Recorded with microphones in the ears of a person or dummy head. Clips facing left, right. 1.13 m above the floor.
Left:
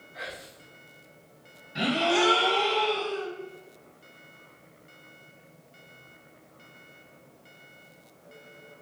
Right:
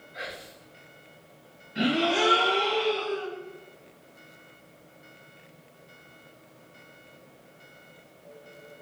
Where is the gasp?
55° left (ahead or behind), 2 m.